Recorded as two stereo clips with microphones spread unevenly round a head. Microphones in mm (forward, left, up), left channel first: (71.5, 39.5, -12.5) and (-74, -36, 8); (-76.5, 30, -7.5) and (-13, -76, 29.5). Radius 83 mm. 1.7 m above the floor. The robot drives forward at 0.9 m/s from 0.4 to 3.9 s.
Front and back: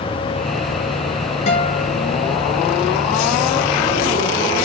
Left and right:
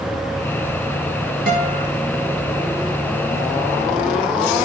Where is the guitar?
25° right, 4.5 m.